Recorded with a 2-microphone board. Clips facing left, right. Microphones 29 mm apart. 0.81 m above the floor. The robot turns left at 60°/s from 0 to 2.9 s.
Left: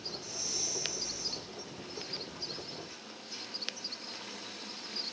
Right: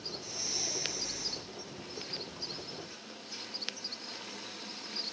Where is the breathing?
10° right, 2.5 m; by 1.4 s 85° right, 2.5 m.